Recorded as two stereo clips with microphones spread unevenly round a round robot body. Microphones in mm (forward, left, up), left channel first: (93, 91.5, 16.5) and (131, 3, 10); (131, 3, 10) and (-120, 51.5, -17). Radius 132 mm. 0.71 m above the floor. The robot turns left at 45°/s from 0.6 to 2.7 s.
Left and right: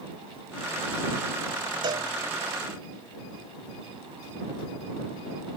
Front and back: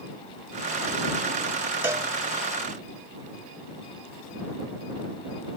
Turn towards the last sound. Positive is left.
turn(degrees=-150)